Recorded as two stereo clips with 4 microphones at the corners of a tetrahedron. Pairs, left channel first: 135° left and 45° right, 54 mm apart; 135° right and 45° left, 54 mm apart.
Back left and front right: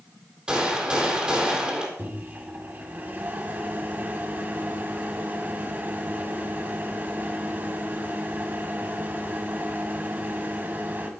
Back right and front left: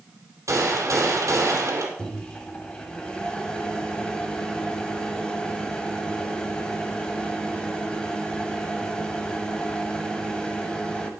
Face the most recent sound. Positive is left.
turn(degrees=-70)